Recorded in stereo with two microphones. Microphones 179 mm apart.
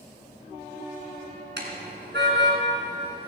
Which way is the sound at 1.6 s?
85° right.